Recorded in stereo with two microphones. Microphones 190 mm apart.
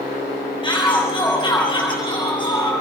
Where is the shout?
20° left (ahead or behind), 7 m.